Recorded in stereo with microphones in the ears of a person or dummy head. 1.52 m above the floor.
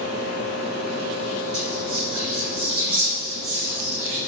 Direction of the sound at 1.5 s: 65° right (ahead or behind).